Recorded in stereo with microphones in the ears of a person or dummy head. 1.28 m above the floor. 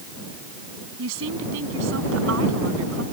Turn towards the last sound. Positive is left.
turn(degrees=-75)  # may be behind; listen again after turning